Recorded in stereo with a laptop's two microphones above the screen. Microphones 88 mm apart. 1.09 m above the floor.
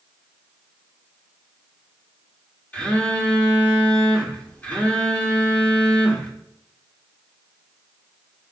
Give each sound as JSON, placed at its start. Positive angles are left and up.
{"t": 2.7, "sound": "a phone buzzing", "side_deg": 20, "distance_m": 1.5}